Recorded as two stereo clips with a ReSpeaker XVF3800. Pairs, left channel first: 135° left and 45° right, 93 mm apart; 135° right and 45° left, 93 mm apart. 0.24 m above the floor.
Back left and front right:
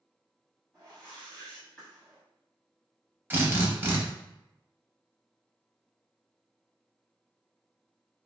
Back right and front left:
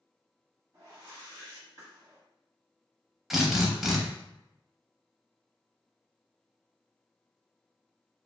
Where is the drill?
35° right, 0.6 m.